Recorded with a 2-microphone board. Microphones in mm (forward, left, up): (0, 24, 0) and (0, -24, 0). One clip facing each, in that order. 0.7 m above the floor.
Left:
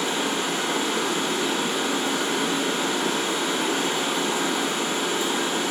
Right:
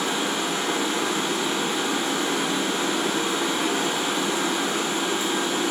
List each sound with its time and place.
0.0 s running water: 45° left (ahead or behind), 1.3 m